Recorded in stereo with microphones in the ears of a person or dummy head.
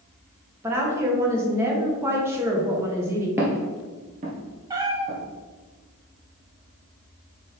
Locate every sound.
0.6 s a woman speaking: 15° right (ahead or behind), 1.6 m
3.4 s footsteps: 15° right (ahead or behind), 1.8 m; by 5.2 s 55° right (ahead or behind), 2.5 m
4.7 s a cat meowing: 20° right (ahead or behind), 1.0 m